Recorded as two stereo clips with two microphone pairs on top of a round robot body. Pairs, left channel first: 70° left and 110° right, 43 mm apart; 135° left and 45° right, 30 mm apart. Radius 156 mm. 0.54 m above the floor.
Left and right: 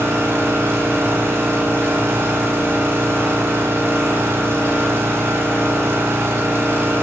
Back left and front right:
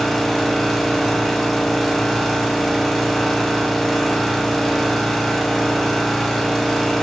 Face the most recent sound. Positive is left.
turn(degrees=-145)